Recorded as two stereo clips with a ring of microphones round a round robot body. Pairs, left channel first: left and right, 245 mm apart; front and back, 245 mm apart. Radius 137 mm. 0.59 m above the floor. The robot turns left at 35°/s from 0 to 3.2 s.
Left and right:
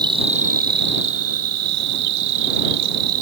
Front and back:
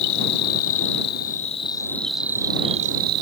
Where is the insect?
15° right; by 3.2 s 130° right.